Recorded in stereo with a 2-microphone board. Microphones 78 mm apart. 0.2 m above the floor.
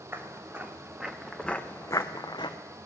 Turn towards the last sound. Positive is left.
turn(degrees=80)